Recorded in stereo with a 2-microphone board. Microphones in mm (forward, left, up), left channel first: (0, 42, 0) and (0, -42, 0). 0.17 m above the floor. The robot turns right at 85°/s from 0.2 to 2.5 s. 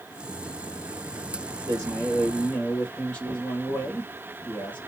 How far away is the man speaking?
About 3 m.